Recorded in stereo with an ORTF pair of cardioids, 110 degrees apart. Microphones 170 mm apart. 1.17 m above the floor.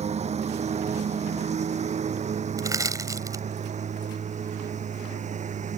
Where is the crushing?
20° right.